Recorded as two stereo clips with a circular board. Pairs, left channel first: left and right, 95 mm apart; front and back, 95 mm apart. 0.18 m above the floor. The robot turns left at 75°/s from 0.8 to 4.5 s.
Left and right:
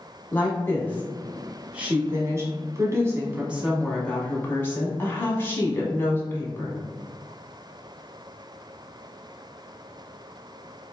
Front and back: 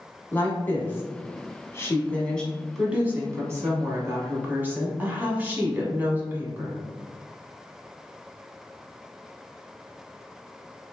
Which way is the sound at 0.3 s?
45° left.